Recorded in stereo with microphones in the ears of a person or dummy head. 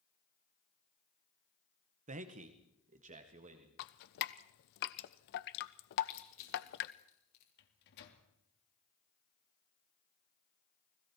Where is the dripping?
60° left (ahead or behind), 1.0 m.